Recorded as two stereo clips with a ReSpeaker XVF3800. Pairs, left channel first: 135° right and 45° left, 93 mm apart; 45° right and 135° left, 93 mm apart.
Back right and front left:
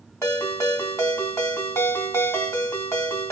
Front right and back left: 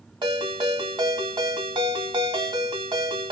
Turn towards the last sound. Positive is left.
turn(degrees=165)